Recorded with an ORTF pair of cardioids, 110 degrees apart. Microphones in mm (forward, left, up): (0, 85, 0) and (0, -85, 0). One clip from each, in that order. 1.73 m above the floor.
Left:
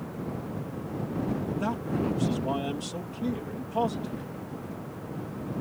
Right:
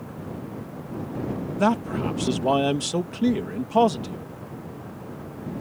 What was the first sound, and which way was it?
A man speaking, 60° right.